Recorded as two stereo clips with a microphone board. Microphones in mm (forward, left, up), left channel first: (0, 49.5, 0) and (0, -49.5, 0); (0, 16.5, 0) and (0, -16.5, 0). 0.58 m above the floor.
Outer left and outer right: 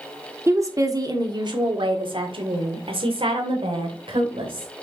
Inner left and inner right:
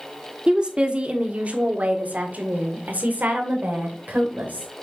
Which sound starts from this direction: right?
A woman speaking, at 0.5 s.